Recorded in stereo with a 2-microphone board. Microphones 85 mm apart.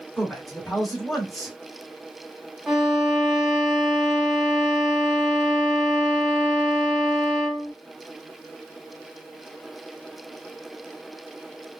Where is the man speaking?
Centre (ahead or behind), 1.1 m.